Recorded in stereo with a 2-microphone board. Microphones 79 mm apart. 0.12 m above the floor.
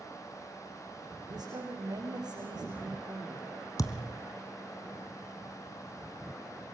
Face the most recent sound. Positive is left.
turn(degrees=45)  # may be behind; listen again after turning